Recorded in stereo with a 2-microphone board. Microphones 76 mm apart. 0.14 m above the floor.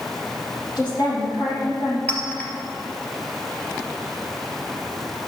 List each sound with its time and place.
0.8 s a woman speaking: 60° left (ahead or behind), 5 m
2.1 s a clink: 20° left (ahead or behind), 2.5 m